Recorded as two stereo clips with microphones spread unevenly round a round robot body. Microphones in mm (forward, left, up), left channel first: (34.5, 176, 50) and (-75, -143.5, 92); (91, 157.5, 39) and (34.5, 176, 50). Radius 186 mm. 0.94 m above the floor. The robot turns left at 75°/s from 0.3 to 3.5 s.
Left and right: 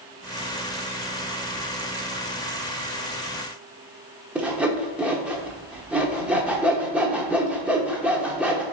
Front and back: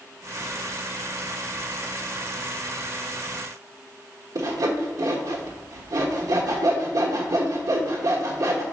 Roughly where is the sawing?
Behind.